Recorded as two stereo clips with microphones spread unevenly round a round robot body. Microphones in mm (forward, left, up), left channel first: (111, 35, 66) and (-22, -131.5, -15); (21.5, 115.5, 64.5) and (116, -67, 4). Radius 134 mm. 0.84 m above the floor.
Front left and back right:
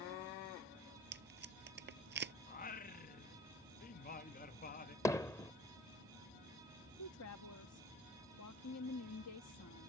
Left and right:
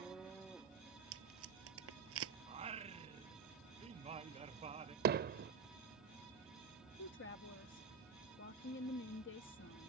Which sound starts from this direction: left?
A woman speaking, at 7.0 s.